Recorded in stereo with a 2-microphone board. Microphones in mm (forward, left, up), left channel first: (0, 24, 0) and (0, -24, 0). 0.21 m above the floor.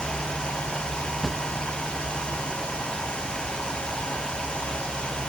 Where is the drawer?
5° left (ahead or behind).